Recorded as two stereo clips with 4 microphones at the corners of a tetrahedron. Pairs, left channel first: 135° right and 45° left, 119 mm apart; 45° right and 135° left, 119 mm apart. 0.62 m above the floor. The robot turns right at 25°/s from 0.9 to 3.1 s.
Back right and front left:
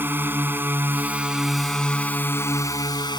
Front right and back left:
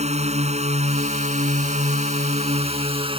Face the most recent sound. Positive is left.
turn(degrees=170)